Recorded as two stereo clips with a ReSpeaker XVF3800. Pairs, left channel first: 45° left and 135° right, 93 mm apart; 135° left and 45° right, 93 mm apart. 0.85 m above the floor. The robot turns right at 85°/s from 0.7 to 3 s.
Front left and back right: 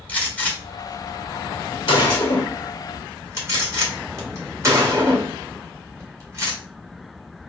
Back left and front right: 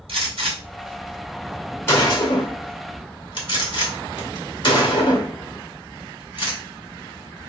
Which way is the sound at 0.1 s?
30° right.